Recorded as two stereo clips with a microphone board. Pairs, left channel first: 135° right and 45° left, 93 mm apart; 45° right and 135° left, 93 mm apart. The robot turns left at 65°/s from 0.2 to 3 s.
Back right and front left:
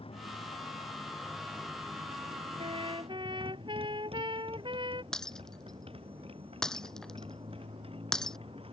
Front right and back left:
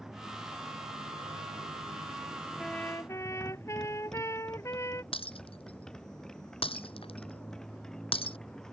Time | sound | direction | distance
0.0 | a motorcycle | 140° right | ?
2.6 | a trumpet | 40° left | ?
5.1 | breaking glass | 50° right | ?